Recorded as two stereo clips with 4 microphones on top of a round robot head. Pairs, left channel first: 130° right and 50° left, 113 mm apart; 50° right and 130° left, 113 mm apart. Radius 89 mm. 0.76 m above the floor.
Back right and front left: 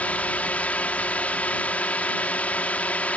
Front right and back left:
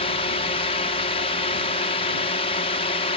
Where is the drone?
55° right.